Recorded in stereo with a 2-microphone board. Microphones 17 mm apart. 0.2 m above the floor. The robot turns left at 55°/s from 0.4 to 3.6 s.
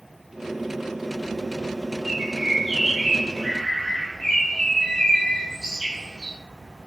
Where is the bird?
135° right, 0.8 m; by 6.4 s 140° left, 0.8 m.